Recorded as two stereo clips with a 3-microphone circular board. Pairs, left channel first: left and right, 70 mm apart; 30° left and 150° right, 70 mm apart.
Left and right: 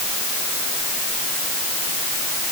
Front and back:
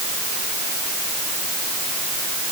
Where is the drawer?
I don't hear a drawer.